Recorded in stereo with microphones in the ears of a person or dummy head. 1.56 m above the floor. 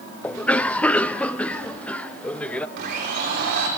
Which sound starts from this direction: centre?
A cough, at 0.2 s.